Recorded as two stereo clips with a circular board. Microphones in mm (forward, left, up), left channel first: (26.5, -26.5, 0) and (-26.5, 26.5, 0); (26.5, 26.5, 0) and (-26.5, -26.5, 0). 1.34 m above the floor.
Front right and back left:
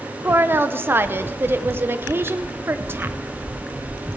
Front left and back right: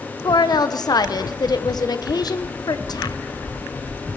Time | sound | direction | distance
0.2 | a woman speaking | 75° left | 0.7 m